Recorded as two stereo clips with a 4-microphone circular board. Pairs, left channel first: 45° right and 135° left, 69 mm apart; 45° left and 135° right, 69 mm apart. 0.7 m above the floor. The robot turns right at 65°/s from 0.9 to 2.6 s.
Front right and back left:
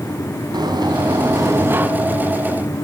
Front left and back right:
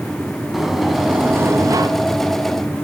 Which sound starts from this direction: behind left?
A sliding door, at 0.5 s.